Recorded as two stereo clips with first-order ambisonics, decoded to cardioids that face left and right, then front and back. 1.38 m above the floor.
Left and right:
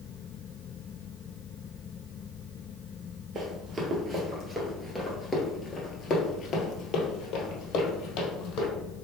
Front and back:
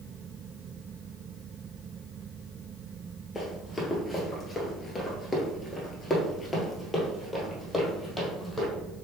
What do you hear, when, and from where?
3.4 s running footsteps: 75° right, 1.6 m; by 8.7 s 85° left, 2.5 m